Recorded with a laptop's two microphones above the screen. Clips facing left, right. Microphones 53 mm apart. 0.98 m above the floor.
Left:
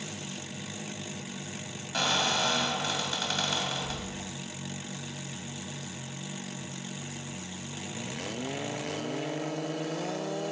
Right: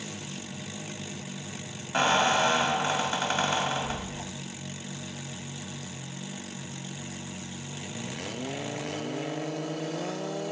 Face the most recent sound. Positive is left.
turn(degrees=-30)  # may be behind; listen again after turning